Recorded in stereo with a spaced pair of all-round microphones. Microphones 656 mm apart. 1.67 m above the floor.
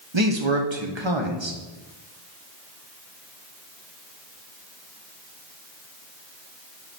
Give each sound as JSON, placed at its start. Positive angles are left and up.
{"t": 0.1, "sound": "a man speaking", "side_deg": -45, "distance_m": 1.2}